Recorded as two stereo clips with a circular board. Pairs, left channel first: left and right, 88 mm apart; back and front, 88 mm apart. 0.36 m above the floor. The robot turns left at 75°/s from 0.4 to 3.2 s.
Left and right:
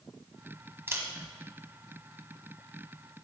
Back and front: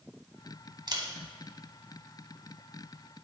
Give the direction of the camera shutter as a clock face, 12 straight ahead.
1 o'clock.